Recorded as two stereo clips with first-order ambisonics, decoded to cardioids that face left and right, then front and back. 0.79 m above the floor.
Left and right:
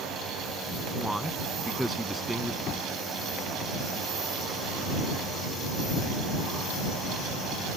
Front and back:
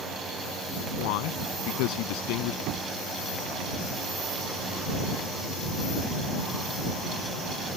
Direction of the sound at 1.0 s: Straight ahead.